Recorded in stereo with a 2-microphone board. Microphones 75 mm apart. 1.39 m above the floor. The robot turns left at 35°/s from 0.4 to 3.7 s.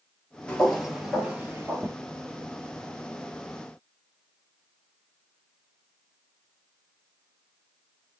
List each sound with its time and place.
0.5 s footsteps: 15° left (ahead or behind), 1.4 m; by 1.9 s 35° right (ahead or behind), 1.6 m